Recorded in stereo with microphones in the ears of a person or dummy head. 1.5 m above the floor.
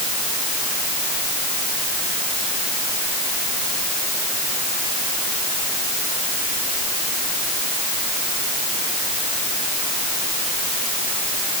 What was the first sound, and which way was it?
Only background noise.